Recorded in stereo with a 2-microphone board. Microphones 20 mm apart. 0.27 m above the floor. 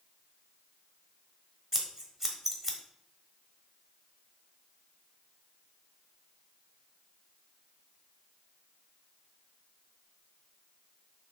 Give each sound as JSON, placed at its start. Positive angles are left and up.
{"t": 1.7, "sound": "scissors", "side_deg": -15, "distance_m": 1.3}